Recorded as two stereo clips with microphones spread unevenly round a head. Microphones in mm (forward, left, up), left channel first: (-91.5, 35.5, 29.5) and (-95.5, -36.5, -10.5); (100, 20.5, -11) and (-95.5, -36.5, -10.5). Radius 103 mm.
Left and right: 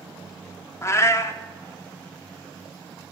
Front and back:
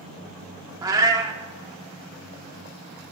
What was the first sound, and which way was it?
A cat meowing, 120° left.